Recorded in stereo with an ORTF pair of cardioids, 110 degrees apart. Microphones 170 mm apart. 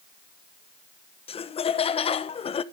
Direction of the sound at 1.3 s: 35° left.